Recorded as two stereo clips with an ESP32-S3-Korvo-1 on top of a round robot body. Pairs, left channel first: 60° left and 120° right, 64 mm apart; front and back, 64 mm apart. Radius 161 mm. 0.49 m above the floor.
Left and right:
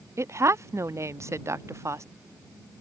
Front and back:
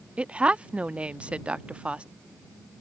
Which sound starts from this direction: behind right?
A woman speaking, at 0.2 s.